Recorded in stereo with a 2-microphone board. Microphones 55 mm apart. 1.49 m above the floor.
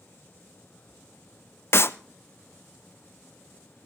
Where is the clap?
50° left (ahead or behind), 0.7 m.